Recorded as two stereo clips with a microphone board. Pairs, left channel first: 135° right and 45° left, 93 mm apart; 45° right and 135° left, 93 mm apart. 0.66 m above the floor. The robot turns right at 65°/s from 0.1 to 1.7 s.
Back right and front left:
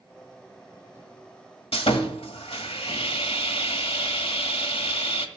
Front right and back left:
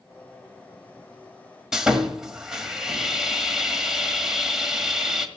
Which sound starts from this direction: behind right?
Sawing, at 1.7 s.